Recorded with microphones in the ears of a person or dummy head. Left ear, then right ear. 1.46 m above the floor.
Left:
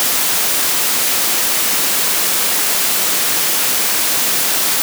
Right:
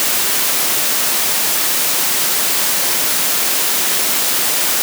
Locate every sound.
Only background noise.